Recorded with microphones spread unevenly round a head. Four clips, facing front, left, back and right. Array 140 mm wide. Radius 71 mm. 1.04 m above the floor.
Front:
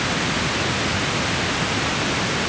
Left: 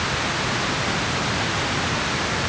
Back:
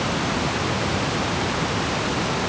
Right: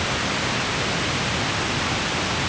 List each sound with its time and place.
Only background noise.